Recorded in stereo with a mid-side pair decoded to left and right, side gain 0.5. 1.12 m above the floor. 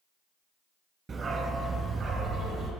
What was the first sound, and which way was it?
A dog barking, 40° right.